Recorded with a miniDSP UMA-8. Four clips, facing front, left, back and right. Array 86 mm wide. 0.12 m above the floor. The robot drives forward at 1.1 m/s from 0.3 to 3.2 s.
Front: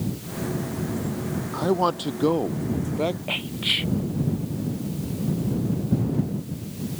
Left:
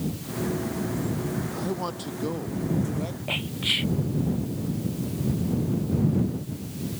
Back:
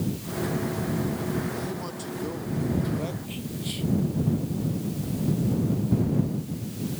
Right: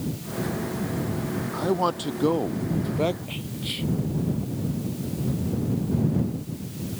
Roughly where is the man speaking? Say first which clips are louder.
Right 6 dB, front 10 dB; ahead right.